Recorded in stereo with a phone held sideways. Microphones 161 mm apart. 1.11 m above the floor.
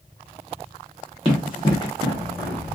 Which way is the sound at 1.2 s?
35° left (ahead or behind).